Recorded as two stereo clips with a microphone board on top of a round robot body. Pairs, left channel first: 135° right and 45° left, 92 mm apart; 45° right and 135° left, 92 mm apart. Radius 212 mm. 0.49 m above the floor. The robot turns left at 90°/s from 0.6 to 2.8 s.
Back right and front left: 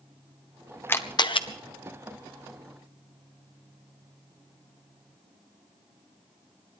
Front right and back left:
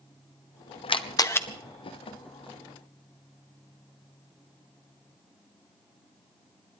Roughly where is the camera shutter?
Ahead right.